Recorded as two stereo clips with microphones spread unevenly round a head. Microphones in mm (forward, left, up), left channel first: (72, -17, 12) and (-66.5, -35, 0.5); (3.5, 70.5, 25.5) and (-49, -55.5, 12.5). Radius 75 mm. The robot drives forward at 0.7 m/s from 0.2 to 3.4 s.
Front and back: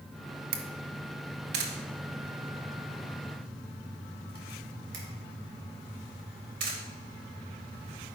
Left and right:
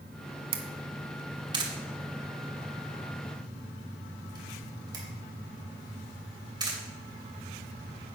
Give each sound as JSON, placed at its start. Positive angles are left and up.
{"t": 0.5, "sound": "a camera shutter", "azimuth_deg": -165, "distance_m": 1.1}